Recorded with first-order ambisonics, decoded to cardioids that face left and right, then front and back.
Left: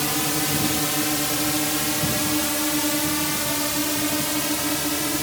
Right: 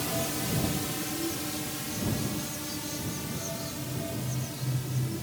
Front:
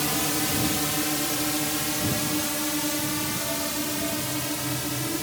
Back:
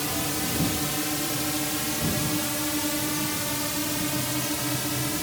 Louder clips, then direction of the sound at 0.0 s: Left 8 dB, front 2 dB; 65° left.